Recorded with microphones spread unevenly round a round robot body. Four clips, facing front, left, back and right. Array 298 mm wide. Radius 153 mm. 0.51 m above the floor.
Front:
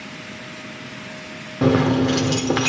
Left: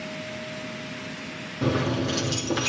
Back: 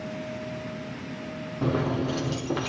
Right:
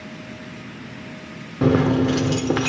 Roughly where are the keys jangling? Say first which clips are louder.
Right 8 dB, front 10 dB; ahead right.